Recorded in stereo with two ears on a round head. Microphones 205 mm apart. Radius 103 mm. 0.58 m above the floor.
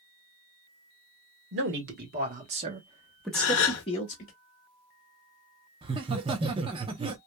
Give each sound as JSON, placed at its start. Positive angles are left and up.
{"t": 1.5, "sound": "a man speaking", "side_deg": -55, "distance_m": 1.3}
{"t": 3.3, "sound": "a gasp", "side_deg": 70, "distance_m": 0.7}
{"t": 5.8, "sound": "laughter", "side_deg": -25, "distance_m": 0.6}